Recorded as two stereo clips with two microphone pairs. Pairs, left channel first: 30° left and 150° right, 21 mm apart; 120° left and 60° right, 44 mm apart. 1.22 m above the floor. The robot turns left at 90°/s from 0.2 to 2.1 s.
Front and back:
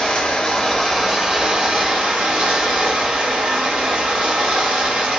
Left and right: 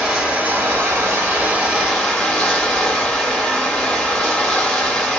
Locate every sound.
0.0 s running water: 10° left, 2.5 m; by 5.2 s 160° right, 2.5 m